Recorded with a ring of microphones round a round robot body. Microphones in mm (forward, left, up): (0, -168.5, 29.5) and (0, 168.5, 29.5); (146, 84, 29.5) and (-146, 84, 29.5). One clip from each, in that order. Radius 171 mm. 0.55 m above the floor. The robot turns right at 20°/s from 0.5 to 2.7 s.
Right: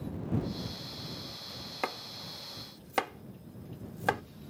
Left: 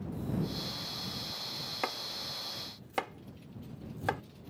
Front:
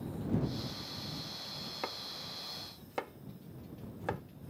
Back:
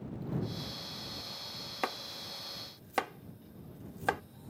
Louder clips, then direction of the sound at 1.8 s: Right 1 dB, back 6 dB; straight behind.